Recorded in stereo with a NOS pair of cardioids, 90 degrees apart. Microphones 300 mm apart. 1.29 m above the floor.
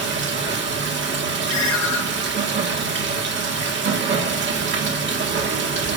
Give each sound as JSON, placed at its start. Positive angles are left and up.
{"t": 0.0, "sound": "running water", "azimuth_deg": -40, "distance_m": 1.7}
{"t": 1.5, "sound": "a ringtone", "azimuth_deg": 65, "distance_m": 2.5}